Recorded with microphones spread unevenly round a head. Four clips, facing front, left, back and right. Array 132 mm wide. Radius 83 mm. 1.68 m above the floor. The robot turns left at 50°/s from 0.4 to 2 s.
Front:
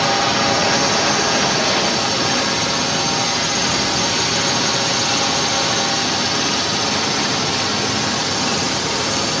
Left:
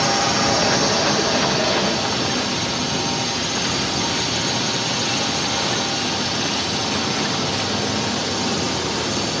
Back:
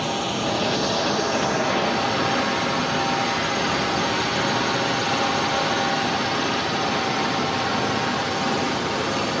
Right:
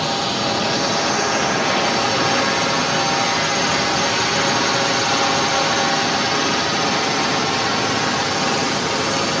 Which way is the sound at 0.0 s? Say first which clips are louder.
Left 2 dB, front 7 dB; straight ahead.